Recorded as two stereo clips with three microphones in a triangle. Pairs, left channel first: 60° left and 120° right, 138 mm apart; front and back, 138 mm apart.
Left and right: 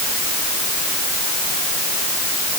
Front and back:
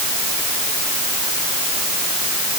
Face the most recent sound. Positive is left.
No sound to turn to.